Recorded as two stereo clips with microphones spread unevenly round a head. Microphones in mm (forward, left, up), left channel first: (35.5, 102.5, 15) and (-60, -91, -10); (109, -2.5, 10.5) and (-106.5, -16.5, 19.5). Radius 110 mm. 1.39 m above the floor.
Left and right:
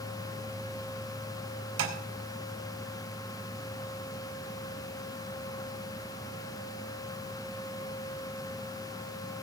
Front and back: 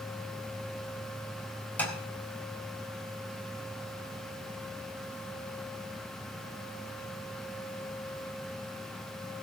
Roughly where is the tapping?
Right.